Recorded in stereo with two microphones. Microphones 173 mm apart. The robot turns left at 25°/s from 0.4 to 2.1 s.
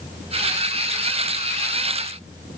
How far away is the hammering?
No hammering in this recording.